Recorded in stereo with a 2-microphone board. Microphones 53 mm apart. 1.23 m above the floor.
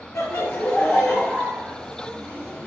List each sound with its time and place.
0.1 s laughter: 60° left (ahead or behind), 0.6 m; by 2.7 s 30° right (ahead or behind), 1.4 m